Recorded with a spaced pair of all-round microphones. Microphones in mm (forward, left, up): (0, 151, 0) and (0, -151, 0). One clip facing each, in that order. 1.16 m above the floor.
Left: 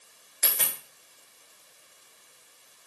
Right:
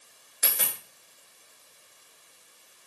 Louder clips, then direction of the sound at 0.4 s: Right 1 dB; 10° right (ahead or behind).